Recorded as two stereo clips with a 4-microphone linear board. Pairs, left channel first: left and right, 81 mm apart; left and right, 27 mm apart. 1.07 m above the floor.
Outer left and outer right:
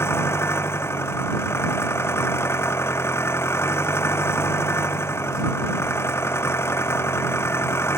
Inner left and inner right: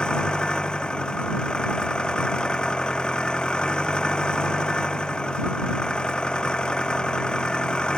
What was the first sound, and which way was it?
An engine running, 30° left (ahead or behind).